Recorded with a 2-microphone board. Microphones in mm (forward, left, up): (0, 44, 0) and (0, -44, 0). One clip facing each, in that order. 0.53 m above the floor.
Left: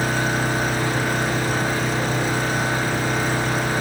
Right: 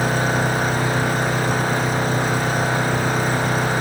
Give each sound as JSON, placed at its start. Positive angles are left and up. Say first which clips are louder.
{"t": 0.0, "sound": "an engine running", "louder": "right 2 dB", "side_deg": -45, "distance_m": 10.0}